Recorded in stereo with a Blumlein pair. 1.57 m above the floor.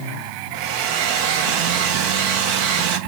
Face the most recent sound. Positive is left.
turn(degrees=-45)